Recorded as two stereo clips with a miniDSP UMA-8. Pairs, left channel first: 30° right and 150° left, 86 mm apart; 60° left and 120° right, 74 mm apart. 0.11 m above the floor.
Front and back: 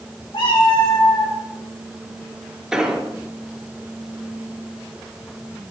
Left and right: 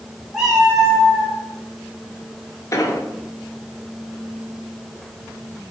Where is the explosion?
75° left, 1.1 m.